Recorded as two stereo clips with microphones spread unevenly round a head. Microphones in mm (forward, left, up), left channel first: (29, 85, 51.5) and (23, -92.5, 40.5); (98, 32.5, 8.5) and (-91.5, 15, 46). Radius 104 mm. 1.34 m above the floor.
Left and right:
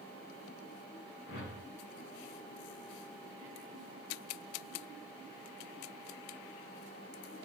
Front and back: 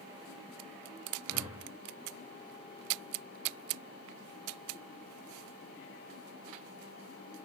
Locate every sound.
1.3 s a whoosh: 110° left, 5.5 m